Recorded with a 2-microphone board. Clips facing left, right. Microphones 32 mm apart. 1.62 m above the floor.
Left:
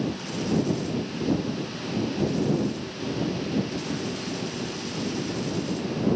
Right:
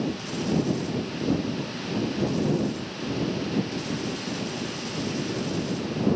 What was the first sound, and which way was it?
Only background noise.